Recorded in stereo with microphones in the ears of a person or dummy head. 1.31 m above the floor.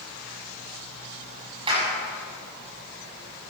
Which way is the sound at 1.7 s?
30° right (ahead or behind).